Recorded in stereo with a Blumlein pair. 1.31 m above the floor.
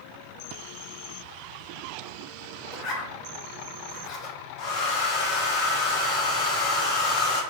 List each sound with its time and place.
2.7 s a zipper: 30° left, 0.7 m
4.6 s a hair dryer: 35° left, 0.7 m